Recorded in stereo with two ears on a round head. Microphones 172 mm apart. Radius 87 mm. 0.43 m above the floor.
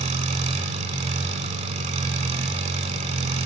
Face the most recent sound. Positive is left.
turn(degrees=-35)  # may be behind; listen again after turning